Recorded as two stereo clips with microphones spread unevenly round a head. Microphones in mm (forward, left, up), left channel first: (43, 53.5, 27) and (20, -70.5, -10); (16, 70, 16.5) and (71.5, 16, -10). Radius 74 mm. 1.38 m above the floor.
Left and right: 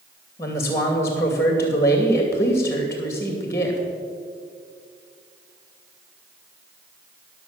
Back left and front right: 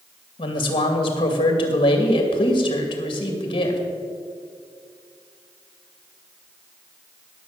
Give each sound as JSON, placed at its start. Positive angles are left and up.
{"t": 0.4, "sound": "a man speaking", "azimuth_deg": 155, "distance_m": 2.5}